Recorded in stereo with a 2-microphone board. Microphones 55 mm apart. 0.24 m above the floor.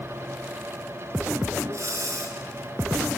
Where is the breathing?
60° right (ahead or behind), 3.5 m.